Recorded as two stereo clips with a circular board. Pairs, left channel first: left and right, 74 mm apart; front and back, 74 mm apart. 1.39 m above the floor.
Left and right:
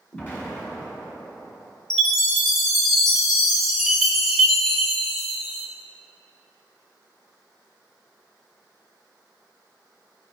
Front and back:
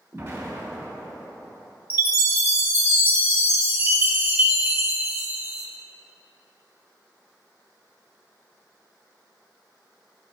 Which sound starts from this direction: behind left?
An explosion, at 0.1 s.